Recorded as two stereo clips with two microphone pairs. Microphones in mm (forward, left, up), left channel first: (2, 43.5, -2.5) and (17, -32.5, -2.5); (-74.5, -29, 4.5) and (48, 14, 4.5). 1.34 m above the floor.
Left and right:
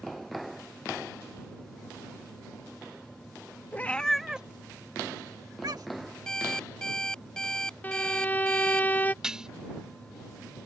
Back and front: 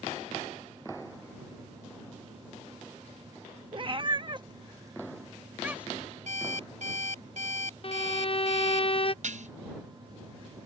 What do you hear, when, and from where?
3.7 s a cat meowing: 45° left; by 6.1 s 65° right
6.3 s an alarm clock: 20° left
7.8 s a violin: 165° left
9.2 s dishes clattering: straight ahead